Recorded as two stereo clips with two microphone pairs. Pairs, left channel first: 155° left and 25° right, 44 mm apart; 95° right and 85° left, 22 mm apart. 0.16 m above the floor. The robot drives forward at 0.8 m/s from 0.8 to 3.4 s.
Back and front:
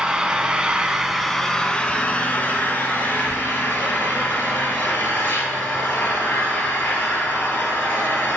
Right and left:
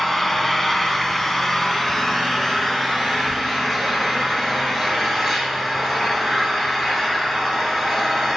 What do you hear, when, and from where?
0.0 s an engine running: 40° right, 0.9 m; by 8.4 s 175° right, 2 m